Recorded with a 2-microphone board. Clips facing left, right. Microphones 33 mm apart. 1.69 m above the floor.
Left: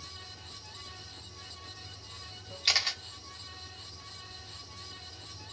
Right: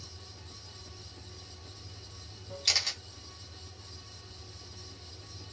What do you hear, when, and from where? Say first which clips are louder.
0.0 s running water: left 4 dB; 25° right (ahead or behind), 2 m
2.6 s a camera shutter: left 2 dB; 25° left (ahead or behind), 0.8 m